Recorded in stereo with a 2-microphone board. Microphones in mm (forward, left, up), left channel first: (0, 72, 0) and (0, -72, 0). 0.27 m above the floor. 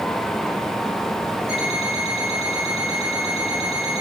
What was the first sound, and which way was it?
An alarm clock, 45° right (ahead or behind).